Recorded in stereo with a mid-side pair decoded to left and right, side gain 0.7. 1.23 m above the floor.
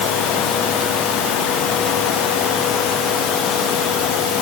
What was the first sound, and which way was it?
Only background noise.